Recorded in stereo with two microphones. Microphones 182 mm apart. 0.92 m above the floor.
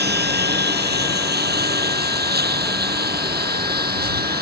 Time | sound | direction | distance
0.0 | a lawn mower | 65° right (ahead or behind) | ?